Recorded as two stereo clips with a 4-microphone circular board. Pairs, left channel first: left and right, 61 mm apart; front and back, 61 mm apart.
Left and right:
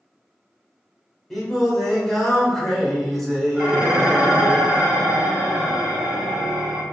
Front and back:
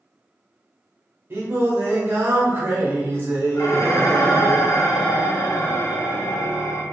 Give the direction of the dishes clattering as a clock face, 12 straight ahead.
1 o'clock.